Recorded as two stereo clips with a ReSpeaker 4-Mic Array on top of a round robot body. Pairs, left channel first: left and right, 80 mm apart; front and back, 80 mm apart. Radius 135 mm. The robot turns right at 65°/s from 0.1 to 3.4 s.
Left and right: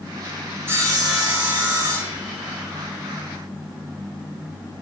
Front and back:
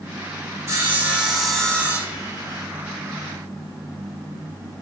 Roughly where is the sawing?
Behind right.